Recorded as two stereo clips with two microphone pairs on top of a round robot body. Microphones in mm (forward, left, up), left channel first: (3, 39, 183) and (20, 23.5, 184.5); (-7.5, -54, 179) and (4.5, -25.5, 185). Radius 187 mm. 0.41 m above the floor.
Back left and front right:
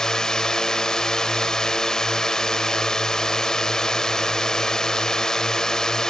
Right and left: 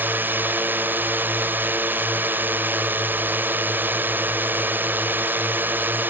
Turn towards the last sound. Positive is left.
turn(degrees=80)